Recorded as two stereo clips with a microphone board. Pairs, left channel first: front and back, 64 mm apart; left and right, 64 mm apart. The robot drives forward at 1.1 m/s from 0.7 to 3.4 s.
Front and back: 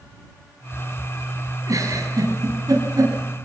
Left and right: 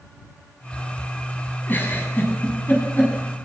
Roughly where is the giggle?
Behind left.